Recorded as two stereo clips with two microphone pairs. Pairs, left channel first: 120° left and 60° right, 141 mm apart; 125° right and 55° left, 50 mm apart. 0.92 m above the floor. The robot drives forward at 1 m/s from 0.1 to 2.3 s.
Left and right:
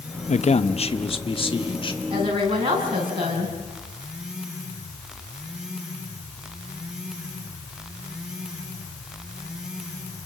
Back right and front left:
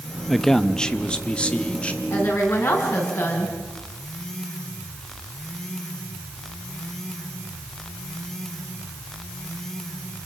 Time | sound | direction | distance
0.3 | a man speaking | 140° left | 0.6 m
2.1 | a woman speaking | 110° right | 7 m